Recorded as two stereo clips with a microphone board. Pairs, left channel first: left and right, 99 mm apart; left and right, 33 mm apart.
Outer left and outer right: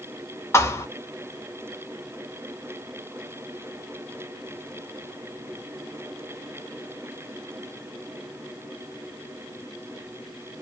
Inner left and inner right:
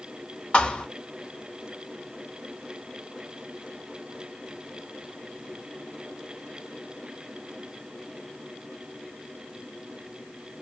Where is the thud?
30° left (ahead or behind), 0.9 m.